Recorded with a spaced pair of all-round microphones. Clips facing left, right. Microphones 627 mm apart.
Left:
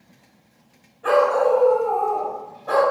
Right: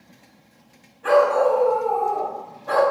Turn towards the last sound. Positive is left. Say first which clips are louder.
# even
turn(degrees=-30)  # may be behind; listen again after turning